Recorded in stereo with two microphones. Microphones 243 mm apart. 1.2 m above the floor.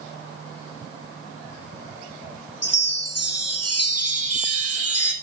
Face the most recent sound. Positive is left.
turn(degrees=85)